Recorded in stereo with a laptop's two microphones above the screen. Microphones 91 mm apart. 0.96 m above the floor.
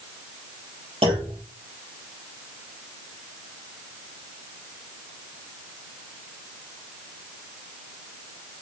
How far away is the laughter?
I don't hear laughter.